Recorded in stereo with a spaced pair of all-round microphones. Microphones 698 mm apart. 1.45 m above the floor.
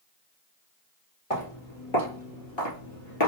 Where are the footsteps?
50° left (ahead or behind), 2.5 m; by 3.3 s 30° left (ahead or behind), 1.6 m.